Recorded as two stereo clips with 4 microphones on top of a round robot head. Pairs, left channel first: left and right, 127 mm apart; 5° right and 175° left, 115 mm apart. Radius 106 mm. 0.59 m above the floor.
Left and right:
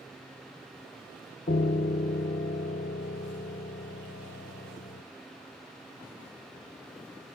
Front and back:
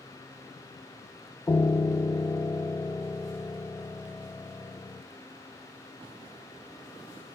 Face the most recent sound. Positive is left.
turn(degrees=65)